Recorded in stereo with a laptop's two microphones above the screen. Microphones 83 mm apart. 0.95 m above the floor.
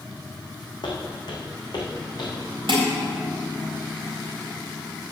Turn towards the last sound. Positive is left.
turn(degrees=-80)